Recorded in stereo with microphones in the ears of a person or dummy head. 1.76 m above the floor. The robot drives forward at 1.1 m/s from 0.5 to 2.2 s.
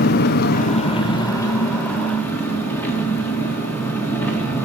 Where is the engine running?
50° left (ahead or behind), 0.8 m; by 4.7 s 15° left (ahead or behind), 2.5 m.